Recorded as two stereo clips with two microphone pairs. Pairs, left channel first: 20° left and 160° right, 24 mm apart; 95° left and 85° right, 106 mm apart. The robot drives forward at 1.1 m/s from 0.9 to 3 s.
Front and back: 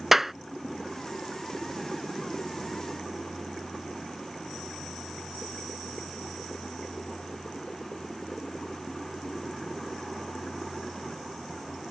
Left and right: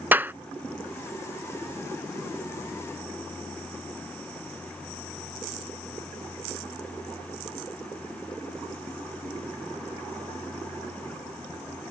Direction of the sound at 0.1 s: 100° right.